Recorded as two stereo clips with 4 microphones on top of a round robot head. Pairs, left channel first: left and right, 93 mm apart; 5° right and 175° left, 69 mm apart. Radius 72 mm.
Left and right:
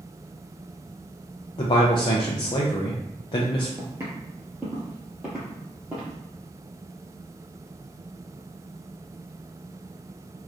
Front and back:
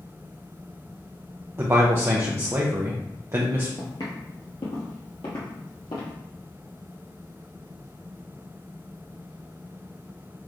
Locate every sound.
1.6 s a man speaking: 120° left, 0.6 m
3.8 s footsteps: 35° right, 1.1 m; by 6.1 s 10° right, 2.0 m